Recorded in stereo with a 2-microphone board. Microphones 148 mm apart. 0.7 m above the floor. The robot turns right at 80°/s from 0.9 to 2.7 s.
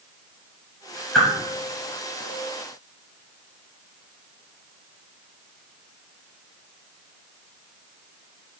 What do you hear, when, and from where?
1.1 s a whoosh: 5° left (ahead or behind), 2.5 m; by 1.3 s 5° right (ahead or behind), 2.5 m